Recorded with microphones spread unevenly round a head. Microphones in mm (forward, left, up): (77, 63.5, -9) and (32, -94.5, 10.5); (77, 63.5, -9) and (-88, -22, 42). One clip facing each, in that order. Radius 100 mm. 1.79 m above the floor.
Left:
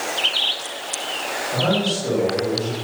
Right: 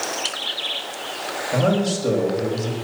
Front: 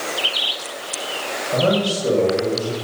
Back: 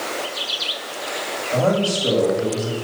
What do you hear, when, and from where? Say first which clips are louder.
1.5 s a man speaking: right 2 dB, even; 70° right, 8.5 m